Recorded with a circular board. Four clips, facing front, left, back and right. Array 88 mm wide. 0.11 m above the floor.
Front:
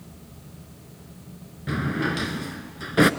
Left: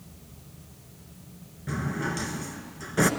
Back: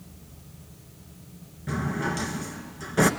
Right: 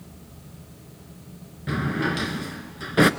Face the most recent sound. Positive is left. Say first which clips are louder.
# right 5 dB, front 3 dB
turn(degrees=-55)